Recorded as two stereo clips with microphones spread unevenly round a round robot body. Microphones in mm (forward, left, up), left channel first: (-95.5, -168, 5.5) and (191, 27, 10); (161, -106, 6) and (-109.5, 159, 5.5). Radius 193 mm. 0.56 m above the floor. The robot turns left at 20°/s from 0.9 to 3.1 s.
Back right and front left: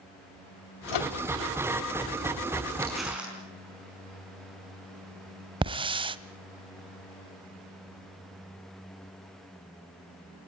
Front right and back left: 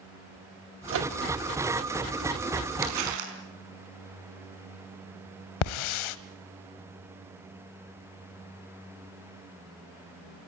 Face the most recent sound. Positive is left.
turn(degrees=-40)